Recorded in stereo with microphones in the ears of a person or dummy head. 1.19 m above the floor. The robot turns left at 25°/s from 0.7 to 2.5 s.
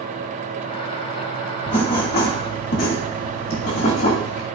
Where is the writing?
30° left (ahead or behind), 1.8 m; by 4.5 s 50° left (ahead or behind), 1.8 m.